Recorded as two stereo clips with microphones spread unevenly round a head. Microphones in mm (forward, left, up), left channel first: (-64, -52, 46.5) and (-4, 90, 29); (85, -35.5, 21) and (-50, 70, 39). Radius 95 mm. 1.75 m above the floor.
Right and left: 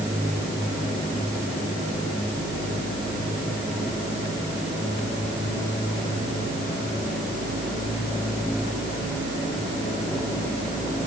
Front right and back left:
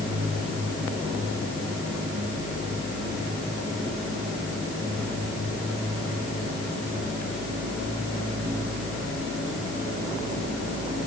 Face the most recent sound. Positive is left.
No sound to turn to.